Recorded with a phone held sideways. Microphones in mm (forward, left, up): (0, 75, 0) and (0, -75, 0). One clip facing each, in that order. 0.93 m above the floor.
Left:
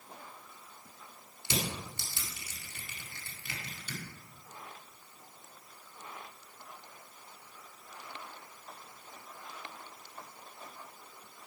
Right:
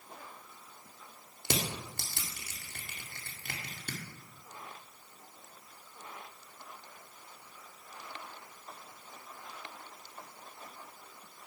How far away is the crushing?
About 1.9 m.